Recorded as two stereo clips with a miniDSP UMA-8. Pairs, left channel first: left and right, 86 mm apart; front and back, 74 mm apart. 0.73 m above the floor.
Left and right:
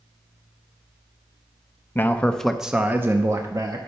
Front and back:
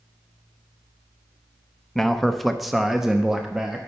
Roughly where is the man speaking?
Left.